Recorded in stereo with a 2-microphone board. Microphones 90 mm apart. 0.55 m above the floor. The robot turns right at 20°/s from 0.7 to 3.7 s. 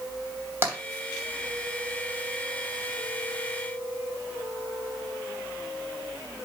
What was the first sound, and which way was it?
Tapping, 25° right (ahead or behind).